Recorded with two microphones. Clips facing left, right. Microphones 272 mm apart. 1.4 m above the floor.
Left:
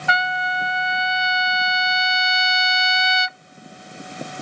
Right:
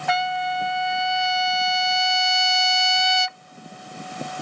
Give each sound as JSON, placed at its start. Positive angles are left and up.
{"t": 0.1, "sound": "a trumpet", "side_deg": -55}